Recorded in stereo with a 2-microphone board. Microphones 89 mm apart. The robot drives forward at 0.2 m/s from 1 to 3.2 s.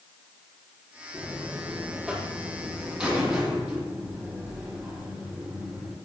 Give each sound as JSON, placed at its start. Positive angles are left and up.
{"t": 1.1, "sound": "a buzzer", "side_deg": -10, "distance_m": 4.0}